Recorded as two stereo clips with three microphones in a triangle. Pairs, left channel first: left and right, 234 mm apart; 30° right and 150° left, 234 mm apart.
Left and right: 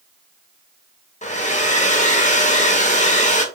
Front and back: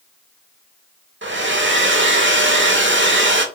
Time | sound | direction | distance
1.2 | a hair dryer | 140° left | 0.8 m